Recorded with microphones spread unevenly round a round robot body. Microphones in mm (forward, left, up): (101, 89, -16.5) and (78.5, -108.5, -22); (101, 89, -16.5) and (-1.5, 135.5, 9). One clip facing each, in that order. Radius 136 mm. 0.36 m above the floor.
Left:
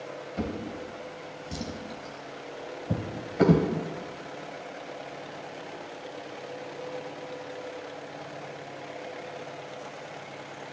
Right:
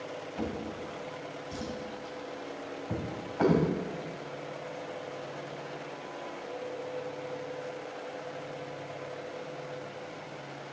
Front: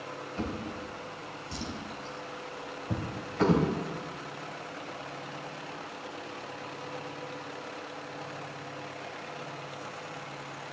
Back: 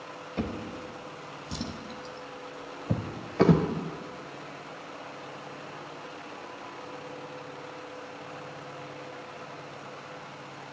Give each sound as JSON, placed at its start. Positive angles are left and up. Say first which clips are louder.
{"t": 0.4, "sound": "a drawer", "louder": "left 3 dB, back 3 dB", "azimuth_deg": 135, "distance_m": 1.0}